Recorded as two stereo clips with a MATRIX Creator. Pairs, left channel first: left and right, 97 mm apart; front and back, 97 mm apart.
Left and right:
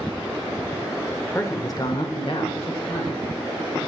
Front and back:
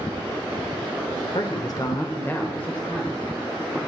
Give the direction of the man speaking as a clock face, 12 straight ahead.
11 o'clock.